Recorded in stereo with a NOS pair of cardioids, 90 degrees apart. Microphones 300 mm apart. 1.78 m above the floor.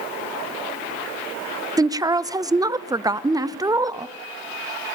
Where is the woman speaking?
10° right, 0.7 m.